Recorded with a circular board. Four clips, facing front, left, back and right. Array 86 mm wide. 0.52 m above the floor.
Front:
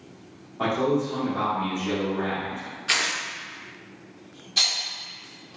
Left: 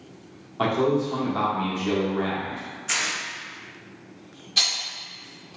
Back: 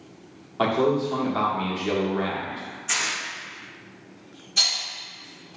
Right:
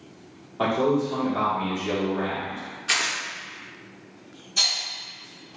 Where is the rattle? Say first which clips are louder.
Left 1 dB, even; 70° left, 1.6 m.